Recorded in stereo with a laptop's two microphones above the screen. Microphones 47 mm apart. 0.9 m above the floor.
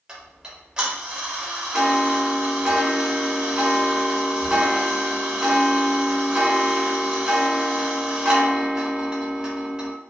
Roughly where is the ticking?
Centre.